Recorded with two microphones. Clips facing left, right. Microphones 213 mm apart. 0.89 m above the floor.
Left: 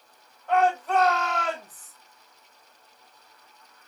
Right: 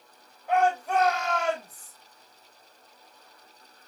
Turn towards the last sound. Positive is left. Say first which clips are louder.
# left 1 dB
turn(degrees=-10)  # may be behind; listen again after turning